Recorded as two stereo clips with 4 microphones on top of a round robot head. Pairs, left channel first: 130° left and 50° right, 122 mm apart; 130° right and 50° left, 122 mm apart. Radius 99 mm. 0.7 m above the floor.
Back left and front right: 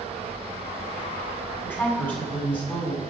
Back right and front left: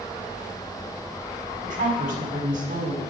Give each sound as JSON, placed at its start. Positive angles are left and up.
{"t": 1.6, "sound": "a woman speaking", "azimuth_deg": 55, "distance_m": 6.5}